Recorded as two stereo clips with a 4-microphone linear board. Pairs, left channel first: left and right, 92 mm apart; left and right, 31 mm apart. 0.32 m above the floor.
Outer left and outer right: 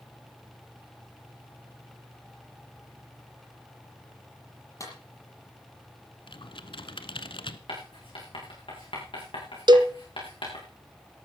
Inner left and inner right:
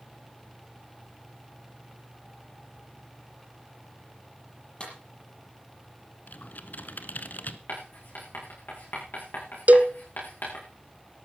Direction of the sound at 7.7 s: 65° left (ahead or behind).